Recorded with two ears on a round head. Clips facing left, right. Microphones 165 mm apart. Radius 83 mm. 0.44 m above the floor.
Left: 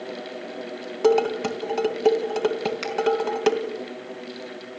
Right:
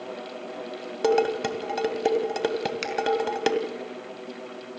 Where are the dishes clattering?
10° right (ahead or behind), 2 m.